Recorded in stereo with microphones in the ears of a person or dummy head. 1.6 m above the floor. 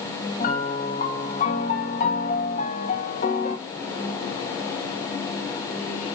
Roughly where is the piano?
Left.